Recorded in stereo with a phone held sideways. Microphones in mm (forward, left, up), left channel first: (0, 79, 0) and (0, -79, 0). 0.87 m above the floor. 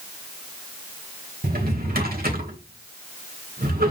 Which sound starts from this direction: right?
A drawer, at 1.4 s.